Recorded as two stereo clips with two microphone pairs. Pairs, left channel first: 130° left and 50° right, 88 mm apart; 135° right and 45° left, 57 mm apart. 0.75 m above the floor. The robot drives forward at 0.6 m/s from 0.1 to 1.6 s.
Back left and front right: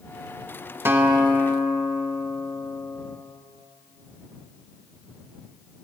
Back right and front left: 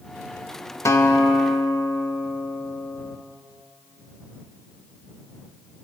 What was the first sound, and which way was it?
A guitar, 110° right.